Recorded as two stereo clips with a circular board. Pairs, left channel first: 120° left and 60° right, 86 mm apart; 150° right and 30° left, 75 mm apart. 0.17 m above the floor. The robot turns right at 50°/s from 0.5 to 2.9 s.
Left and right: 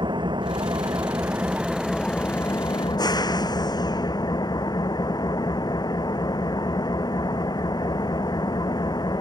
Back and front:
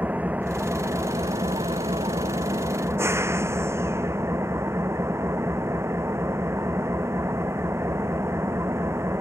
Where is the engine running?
35° right; by 9.2 s 85° left.